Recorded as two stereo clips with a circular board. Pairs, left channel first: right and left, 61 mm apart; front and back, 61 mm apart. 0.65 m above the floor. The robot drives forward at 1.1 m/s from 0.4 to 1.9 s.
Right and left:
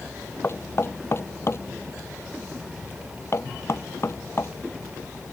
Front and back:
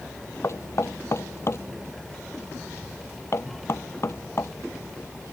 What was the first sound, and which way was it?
Knocking, 40° right.